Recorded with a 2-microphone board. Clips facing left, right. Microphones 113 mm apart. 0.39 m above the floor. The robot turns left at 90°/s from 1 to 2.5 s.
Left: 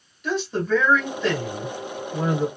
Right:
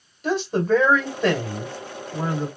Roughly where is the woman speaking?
Ahead right.